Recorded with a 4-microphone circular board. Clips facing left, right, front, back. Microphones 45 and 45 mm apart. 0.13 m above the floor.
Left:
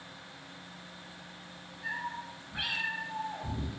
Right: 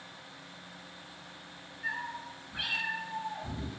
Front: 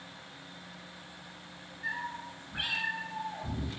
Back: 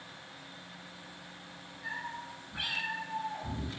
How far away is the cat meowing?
About 0.9 m.